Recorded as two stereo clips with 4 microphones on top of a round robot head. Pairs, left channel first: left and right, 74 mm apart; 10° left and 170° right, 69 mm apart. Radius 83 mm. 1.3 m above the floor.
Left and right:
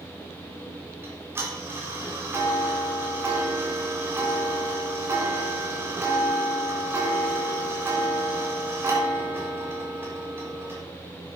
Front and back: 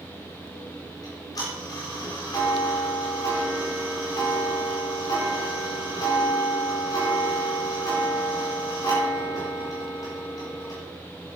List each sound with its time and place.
1.0 s ticking: 30° right, 4 m